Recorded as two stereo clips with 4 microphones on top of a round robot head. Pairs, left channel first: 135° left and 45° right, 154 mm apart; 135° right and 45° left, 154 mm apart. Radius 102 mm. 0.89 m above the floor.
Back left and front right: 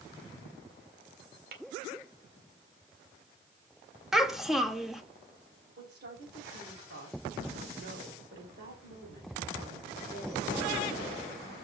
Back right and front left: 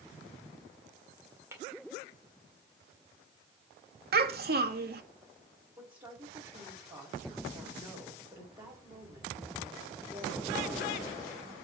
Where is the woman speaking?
25° right, 3.5 m.